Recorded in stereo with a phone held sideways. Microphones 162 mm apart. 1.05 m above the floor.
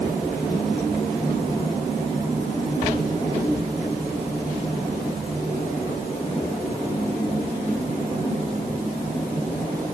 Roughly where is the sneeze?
No sneeze in this recording.